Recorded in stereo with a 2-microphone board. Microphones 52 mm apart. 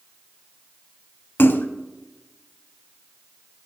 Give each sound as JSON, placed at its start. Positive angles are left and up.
{"t": 1.4, "sound": "a splash", "side_deg": 45, "distance_m": 0.7}